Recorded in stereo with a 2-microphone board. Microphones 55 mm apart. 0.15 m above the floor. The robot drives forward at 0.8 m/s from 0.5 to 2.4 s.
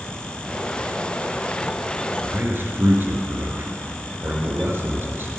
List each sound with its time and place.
2.2 s a man speaking: 40° right (ahead or behind), 2 m